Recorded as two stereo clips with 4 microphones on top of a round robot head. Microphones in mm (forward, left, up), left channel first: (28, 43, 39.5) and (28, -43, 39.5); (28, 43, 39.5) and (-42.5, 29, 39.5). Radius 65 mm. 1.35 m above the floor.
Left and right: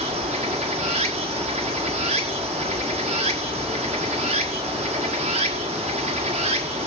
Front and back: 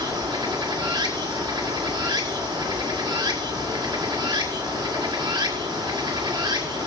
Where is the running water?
115° right, 1.9 m.